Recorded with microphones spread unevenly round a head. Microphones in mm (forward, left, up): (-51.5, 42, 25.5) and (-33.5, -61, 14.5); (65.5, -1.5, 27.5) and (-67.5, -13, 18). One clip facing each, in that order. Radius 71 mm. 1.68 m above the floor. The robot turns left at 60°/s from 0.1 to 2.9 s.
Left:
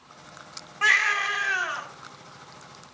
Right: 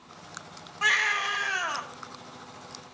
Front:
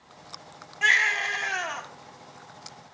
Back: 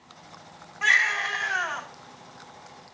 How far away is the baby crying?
About 1.1 m.